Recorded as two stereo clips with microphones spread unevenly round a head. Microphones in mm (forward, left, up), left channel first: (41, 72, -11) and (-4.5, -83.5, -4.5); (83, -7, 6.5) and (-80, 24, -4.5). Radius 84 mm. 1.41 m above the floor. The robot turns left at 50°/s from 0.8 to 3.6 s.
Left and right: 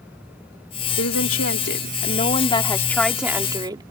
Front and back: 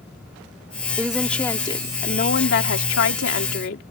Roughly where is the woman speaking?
Left.